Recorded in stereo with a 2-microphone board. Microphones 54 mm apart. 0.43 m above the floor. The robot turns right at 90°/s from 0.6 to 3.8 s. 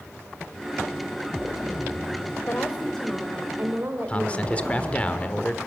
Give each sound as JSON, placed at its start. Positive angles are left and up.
{"t": 2.5, "sound": "a woman speaking", "azimuth_deg": 120, "distance_m": 1.7}
{"t": 4.1, "sound": "a man speaking", "side_deg": 25, "distance_m": 1.3}